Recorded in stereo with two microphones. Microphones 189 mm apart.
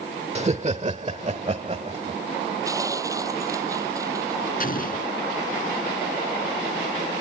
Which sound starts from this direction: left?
An explosion, at 4.6 s.